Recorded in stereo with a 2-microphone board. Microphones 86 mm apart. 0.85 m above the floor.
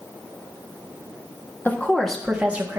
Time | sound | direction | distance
1.6 | a woman speaking | 25° left (ahead or behind) | 1.7 m